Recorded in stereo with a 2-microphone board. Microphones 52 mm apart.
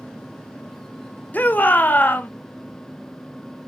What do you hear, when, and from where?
1.3 s a shout: 35° left (ahead or behind), 0.8 m